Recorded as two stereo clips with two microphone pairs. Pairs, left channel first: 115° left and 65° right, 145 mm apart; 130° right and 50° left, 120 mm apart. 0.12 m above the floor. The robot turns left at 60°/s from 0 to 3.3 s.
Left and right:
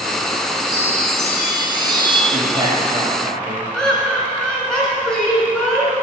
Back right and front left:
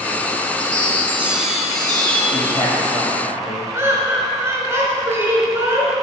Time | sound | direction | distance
0.6 | a chime | 25° left | 1.5 m
2.3 | a man speaking | 85° right | 2.5 m
3.7 | laughter | 40° left | 1.5 m